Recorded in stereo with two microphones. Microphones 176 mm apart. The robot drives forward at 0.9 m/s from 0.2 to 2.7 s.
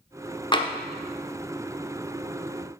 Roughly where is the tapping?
Left.